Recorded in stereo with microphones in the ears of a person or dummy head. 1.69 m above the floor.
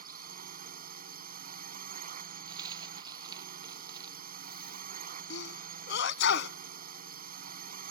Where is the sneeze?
70° left (ahead or behind).